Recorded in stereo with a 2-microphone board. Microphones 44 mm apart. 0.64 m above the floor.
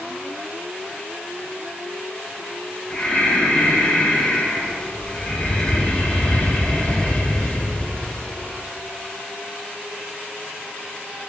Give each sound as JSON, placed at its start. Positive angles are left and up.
{"t": 2.9, "sound": "breathing", "side_deg": 25, "distance_m": 2.5}